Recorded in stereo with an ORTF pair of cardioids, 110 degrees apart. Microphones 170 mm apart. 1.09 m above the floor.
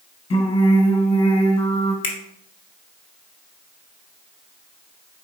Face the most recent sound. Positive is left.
turn(degrees=30)